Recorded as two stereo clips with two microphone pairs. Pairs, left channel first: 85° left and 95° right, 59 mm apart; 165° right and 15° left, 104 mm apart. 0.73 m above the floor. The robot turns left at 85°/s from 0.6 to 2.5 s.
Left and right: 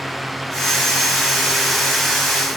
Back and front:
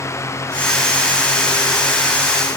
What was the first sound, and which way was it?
Only background noise.